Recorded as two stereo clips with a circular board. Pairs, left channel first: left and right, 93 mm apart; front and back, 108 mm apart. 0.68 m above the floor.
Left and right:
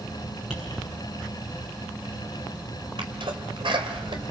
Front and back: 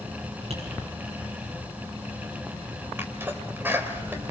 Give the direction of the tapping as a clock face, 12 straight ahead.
6 o'clock.